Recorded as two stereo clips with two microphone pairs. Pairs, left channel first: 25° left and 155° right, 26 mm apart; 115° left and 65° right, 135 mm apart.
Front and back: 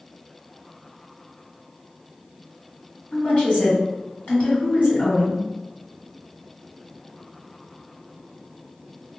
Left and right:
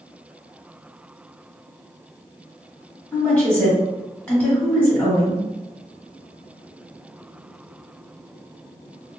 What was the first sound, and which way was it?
A woman speaking, 40° left.